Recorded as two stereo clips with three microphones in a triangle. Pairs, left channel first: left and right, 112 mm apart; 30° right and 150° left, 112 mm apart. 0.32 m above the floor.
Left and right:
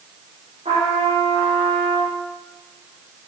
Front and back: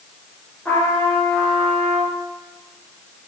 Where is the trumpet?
110° right, 4 m.